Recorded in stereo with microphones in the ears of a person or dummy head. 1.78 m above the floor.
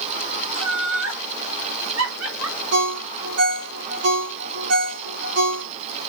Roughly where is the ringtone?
Right.